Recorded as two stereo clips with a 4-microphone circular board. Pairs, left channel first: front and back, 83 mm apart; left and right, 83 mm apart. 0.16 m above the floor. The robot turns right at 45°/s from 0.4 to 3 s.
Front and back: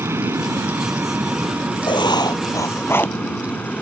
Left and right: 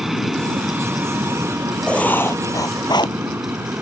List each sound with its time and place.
0.0 s an aircraft: 170° right; by 3.8 s 55° right
1.9 s writing: 10° left; by 3.2 s 65° left